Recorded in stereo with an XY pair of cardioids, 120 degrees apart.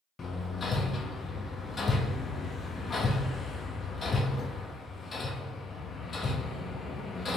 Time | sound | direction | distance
0.2 | hammering | 35° left | 0.6 m